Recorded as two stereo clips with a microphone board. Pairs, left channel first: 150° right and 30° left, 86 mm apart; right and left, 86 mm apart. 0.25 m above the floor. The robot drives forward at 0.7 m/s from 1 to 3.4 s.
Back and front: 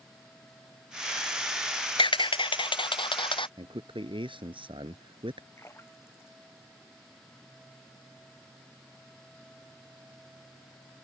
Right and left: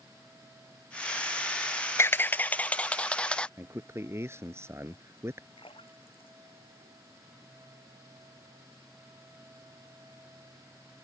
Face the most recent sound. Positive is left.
turn(degrees=-90)